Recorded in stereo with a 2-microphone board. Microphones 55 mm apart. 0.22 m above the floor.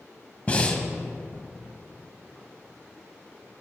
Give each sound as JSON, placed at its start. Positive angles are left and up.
{"t": 0.5, "sound": "breathing", "side_deg": 25, "distance_m": 0.9}